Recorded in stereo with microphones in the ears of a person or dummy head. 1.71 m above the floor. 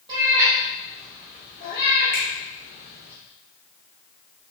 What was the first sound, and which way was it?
A cat meowing, 25° right (ahead or behind).